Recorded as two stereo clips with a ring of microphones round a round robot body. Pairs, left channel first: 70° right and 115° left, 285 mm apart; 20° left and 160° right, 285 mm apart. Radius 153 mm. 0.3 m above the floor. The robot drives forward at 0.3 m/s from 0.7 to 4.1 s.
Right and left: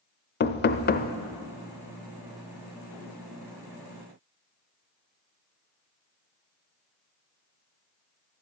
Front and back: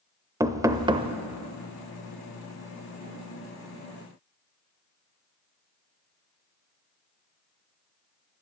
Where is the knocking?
85° right, 0.7 m; by 1.1 s 105° right, 0.7 m.